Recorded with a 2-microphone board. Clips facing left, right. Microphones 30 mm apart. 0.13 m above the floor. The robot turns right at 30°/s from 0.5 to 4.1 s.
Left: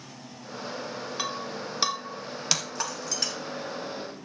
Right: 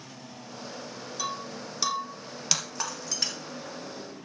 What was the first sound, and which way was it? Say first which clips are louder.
Breaking glass: even; 50° left (ahead or behind).